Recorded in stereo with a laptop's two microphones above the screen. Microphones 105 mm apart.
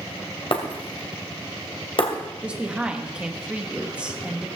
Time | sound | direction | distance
0.5 | breaking glass | 55° left (ahead or behind) | 2 m
2.4 | a woman speaking | 10° right (ahead or behind) | 1.1 m